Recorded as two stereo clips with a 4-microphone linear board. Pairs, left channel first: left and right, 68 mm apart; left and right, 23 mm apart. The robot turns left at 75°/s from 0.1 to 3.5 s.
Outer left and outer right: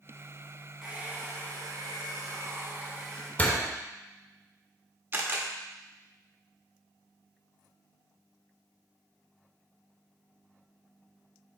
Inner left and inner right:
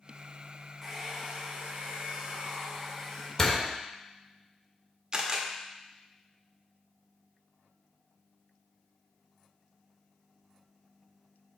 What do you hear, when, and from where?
0.8 s a hair dryer: 10° right, 1.6 m; by 3.3 s 165° left, 1.6 m
3.4 s a door slam: 25° left (ahead or behind), 1.1 m; by 3.7 s 30° left (ahead or behind), 1.1 m
5.1 s a camera shutter: 35° right (ahead or behind), 1.1 m